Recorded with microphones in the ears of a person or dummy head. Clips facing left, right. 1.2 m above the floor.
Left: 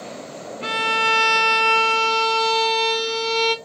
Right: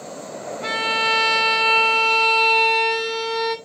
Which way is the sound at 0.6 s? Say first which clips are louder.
Left 2 dB; 40° left (ahead or behind).